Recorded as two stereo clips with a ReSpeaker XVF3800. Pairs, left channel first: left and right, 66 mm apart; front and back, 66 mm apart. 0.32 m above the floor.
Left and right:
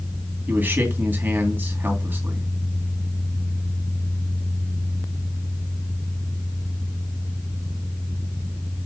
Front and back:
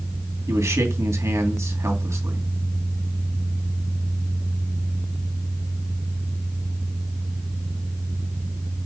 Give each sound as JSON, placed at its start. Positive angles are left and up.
{"t": 0.5, "sound": "a man speaking", "azimuth_deg": -150, "distance_m": 3.0}